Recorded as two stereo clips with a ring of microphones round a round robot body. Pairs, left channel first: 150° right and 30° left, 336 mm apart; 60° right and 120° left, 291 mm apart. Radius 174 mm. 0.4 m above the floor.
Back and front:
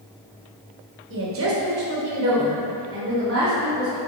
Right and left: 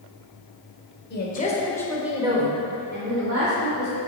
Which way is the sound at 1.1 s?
15° right.